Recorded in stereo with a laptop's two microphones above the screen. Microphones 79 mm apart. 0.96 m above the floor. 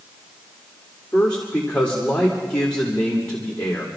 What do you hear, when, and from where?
1.1 s a man speaking: 15° left (ahead or behind), 3 m